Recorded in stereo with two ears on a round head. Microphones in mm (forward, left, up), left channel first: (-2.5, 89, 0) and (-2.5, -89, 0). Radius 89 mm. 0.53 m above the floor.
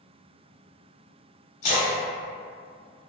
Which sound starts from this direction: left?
A splash, at 1.6 s.